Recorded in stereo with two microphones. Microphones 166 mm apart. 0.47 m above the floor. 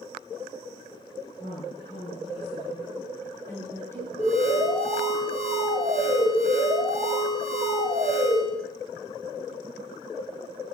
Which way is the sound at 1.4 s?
45° left (ahead or behind).